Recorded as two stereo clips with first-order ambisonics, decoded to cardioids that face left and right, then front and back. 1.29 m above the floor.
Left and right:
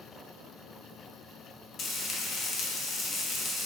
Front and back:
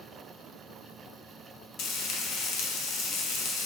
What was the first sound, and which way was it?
Frying, 35° left.